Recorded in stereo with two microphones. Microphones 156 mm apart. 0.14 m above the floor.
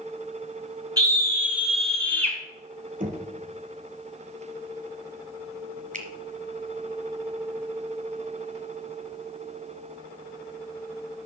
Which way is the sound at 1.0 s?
25° right (ahead or behind).